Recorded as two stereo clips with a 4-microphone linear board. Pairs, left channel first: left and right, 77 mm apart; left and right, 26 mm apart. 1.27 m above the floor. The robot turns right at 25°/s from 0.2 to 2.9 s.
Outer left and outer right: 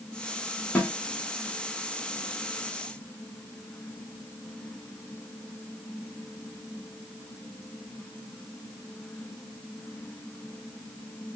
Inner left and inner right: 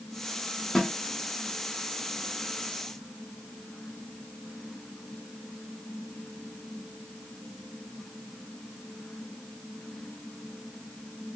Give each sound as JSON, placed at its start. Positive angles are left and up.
{"t": 0.8, "sound": "a snare drum", "side_deg": 20, "distance_m": 2.0}